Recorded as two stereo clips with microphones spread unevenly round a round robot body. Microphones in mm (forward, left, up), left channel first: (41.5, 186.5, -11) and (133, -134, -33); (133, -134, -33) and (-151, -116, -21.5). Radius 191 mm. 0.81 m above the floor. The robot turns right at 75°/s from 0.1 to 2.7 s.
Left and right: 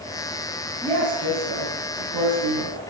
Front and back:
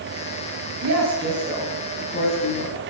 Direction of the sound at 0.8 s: 160° right.